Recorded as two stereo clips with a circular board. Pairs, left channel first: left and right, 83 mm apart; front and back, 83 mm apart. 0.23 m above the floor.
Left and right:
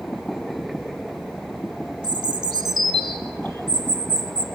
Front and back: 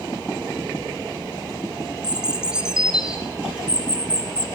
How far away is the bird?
About 0.8 m.